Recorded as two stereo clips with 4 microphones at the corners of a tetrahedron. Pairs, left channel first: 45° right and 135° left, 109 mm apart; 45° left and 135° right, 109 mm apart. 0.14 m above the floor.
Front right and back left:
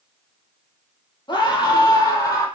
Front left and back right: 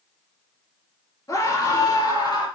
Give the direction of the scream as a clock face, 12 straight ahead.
12 o'clock.